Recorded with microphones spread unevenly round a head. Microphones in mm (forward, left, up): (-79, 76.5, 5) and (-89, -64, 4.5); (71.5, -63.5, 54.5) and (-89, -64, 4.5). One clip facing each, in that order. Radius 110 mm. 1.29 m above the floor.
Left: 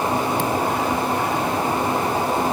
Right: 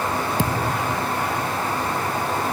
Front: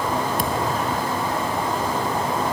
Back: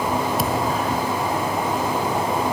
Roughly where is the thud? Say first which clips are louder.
Left 2 dB, back 1 dB; right.